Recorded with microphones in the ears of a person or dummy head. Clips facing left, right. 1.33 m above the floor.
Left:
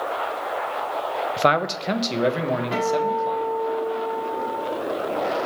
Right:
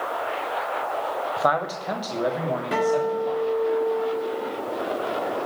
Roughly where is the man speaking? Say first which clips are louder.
Left 4 dB; left.